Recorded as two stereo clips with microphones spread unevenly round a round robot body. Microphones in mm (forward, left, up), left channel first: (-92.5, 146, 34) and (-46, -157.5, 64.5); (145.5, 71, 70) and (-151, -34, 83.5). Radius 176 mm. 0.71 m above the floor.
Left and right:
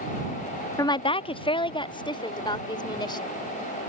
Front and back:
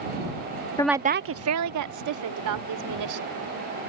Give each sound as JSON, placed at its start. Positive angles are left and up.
{"t": 0.8, "sound": "a woman speaking", "azimuth_deg": 60}